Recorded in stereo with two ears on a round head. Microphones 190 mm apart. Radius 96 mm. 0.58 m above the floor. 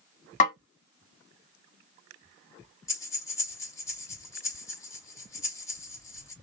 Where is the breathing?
15° left (ahead or behind), 1.1 m.